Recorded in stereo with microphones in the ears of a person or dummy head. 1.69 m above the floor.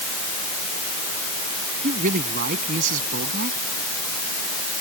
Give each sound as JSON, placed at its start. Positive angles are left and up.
{"t": 1.8, "sound": "a man speaking", "side_deg": -45}